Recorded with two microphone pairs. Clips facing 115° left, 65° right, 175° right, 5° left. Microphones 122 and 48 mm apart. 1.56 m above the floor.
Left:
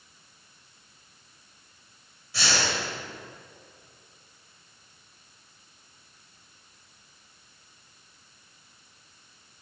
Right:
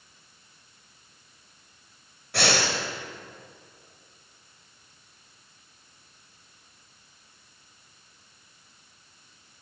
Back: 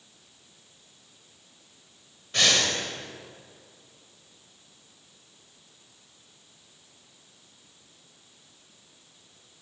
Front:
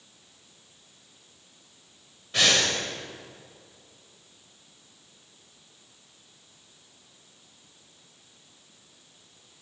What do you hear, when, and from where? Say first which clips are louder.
2.3 s breathing: right 4 dB, front 1 dB; 85° right, 4 m